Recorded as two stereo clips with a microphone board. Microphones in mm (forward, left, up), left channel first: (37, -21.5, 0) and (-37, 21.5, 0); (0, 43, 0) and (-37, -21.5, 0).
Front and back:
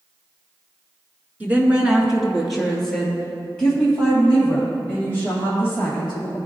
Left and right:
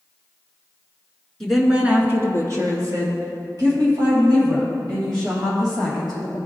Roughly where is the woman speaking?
Behind left.